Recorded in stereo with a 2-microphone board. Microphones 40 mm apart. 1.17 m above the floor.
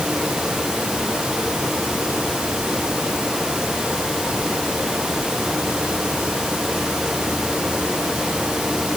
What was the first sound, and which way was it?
Only background noise.